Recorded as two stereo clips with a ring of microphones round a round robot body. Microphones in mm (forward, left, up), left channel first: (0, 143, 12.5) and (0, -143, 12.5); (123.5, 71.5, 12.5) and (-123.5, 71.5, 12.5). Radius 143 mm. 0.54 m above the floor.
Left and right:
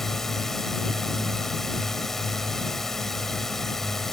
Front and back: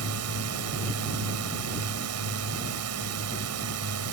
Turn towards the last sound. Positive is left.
turn(degrees=180)